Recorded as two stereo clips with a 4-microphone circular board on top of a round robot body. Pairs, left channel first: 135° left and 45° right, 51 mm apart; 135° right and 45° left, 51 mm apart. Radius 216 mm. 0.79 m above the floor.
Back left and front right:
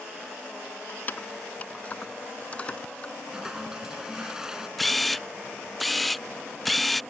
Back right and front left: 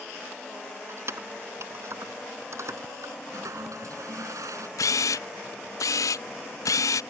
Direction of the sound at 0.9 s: 80° left.